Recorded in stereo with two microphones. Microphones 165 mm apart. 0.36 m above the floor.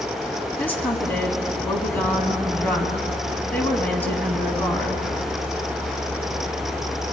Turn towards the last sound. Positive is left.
turn(degrees=10)  # may be behind; listen again after turning